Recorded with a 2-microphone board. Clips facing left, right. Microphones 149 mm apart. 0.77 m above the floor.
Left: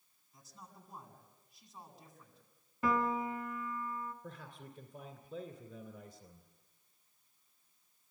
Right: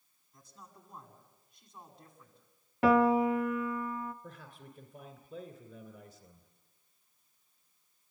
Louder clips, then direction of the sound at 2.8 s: Right 9 dB; 80° right.